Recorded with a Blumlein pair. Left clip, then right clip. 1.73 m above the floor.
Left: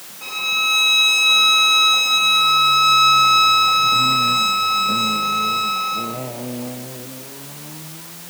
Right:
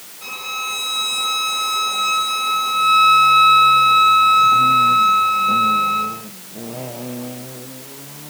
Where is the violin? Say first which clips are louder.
Left 6 dB; 10° left, 4 m.